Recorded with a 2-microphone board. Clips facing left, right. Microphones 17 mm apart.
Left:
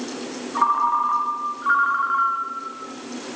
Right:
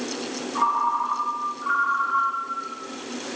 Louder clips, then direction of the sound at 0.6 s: Left 3 dB; 25° left (ahead or behind).